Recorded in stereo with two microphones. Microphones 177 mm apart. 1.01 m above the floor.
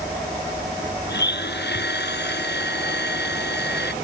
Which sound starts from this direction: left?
A blender, at 1.1 s.